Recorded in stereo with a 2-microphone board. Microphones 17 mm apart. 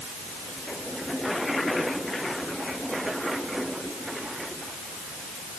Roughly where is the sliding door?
No sliding door in this recording.